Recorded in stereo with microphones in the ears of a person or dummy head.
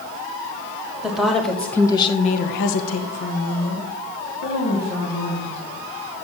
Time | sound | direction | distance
1.0 | a woman speaking | 10° right (ahead or behind) | 1.5 m